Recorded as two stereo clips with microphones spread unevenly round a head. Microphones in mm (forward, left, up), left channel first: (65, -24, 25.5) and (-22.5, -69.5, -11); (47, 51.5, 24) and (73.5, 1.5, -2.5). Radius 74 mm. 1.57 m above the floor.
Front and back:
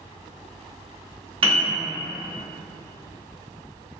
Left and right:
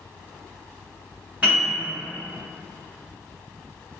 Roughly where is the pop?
I don't hear a pop.